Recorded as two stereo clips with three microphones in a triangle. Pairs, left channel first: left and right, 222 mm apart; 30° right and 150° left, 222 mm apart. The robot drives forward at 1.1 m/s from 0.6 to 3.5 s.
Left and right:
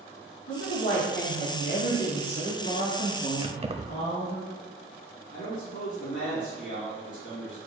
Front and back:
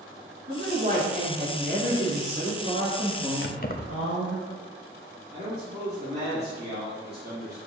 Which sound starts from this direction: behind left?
A man speaking, at 5.3 s.